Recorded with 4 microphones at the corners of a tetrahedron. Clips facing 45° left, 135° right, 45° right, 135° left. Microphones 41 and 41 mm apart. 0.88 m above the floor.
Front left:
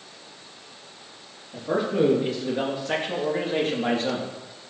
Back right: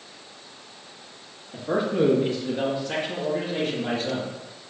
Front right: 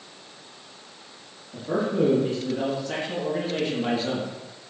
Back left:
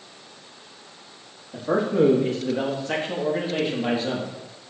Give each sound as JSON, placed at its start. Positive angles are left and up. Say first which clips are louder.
{"t": 1.5, "sound": "a man speaking", "louder": "even, back left 3 dB", "azimuth_deg": 135, "distance_m": 1.5}